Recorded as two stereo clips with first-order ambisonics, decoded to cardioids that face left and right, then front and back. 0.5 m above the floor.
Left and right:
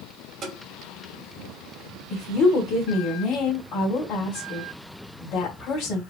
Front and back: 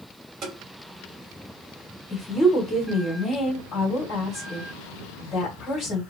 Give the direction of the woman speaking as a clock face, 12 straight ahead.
10 o'clock.